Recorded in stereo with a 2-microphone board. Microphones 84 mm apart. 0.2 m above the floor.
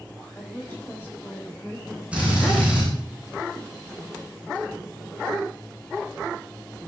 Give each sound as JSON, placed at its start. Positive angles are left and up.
{"t": 0.3, "sound": "a woman speaking", "side_deg": 20, "distance_m": 7.0}
{"t": 2.1, "sound": "a drill", "side_deg": -15, "distance_m": 9.0}